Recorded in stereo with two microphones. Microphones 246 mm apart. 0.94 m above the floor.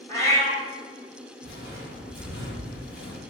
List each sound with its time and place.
0.1 s a cat meowing: 10° left (ahead or behind), 1.7 m
1.4 s footsteps: 40° left (ahead or behind), 2.0 m; by 3.2 s 55° left (ahead or behind), 1.5 m